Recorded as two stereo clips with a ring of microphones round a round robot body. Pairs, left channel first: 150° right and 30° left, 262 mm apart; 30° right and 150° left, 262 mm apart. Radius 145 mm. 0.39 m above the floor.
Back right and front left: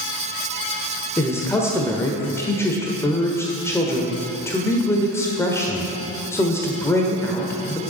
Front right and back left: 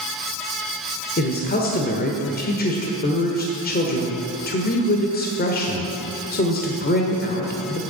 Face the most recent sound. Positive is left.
turn(degrees=-75)